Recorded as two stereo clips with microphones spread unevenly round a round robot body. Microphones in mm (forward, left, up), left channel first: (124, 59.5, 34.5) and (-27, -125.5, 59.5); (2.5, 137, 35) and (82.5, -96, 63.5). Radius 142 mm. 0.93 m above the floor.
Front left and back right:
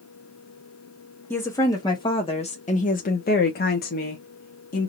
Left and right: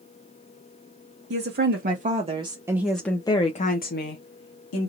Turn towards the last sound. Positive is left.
turn(degrees=100)